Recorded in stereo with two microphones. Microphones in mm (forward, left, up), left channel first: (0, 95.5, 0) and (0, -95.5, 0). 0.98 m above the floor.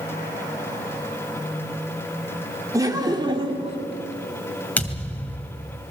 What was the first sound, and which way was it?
Laughter, 20° right (ahead or behind).